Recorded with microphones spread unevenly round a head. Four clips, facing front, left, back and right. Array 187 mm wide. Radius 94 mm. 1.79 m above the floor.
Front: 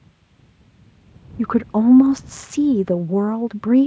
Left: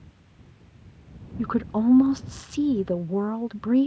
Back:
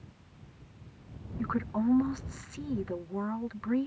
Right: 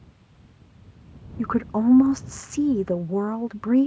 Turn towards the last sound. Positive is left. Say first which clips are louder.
# right 1 dB, front 13 dB
turn(degrees=0)